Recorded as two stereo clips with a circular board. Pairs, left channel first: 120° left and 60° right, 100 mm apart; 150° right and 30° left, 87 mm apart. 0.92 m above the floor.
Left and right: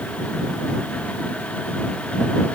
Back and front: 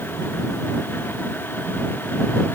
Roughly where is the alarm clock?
No alarm clock in this recording.